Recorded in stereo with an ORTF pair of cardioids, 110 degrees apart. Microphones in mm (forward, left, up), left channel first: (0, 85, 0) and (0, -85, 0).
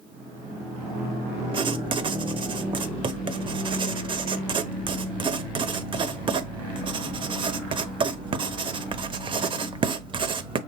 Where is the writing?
30° right, 0.7 m.